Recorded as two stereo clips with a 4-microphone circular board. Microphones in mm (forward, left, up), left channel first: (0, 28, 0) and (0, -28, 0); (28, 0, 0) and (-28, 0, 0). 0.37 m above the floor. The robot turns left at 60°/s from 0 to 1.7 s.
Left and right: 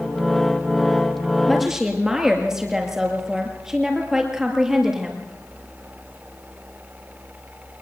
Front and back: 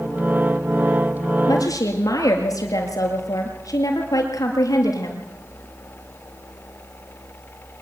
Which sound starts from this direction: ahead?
A woman speaking, at 1.5 s.